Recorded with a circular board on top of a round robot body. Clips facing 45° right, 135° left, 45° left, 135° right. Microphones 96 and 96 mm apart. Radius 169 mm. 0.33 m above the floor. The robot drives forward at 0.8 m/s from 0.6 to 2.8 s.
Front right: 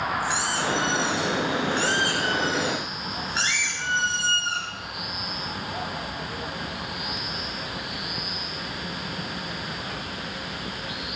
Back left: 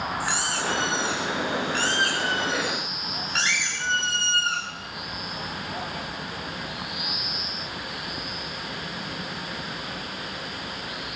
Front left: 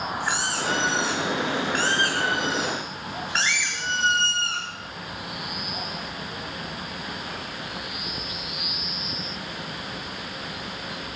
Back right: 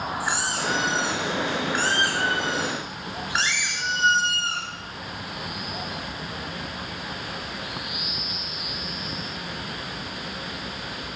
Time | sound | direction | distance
0.2 | a squeak | 140° left | 7.5 m